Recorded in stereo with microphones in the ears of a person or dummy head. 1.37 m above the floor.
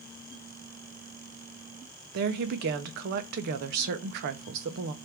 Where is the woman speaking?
55° right (ahead or behind), 0.6 m.